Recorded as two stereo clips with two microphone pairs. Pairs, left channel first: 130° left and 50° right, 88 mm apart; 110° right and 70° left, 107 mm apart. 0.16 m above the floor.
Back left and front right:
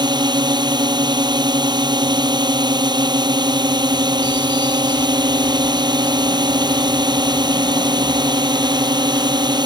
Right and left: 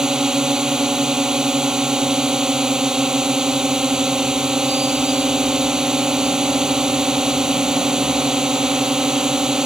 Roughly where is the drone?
Ahead.